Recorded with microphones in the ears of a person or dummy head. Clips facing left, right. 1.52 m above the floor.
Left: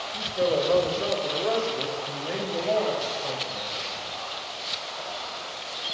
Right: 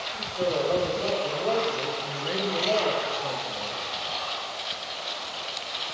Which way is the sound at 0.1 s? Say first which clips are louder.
Left 3 dB; 35° left (ahead or behind).